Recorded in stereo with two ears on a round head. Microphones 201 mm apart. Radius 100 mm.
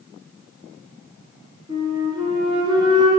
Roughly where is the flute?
Right.